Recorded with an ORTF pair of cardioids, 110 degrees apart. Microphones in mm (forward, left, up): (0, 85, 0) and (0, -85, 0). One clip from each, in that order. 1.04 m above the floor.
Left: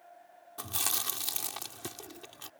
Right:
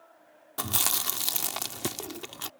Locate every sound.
0.6 s chewing: 50° right